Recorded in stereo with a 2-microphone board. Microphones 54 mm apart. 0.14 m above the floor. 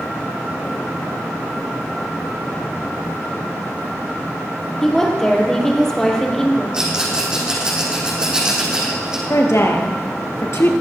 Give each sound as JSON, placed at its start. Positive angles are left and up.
{"t": 4.8, "sound": "a woman speaking", "side_deg": 10, "distance_m": 3.5}
{"t": 6.7, "sound": "a rattle", "side_deg": -15, "distance_m": 4.0}
{"t": 9.3, "sound": "a woman speaking", "side_deg": 55, "distance_m": 2.5}